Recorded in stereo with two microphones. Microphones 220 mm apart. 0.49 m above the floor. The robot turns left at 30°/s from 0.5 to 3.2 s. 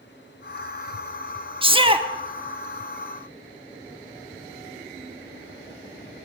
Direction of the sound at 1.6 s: 25° right (ahead or behind).